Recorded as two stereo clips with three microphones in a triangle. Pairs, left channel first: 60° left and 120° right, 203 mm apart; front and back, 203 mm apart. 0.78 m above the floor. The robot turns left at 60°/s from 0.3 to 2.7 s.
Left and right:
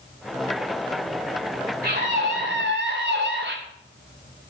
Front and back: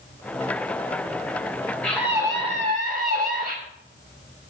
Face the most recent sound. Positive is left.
turn(degrees=-130)